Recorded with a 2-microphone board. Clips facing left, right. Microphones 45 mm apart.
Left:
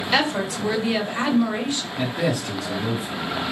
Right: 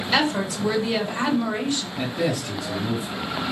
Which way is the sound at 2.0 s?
60° left (ahead or behind).